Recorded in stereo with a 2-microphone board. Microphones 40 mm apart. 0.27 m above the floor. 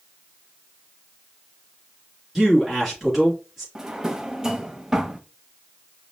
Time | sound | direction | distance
2.4 | a man speaking | 5° right (ahead or behind) | 3 m
3.8 | a drawer | 15° right (ahead or behind) | 0.7 m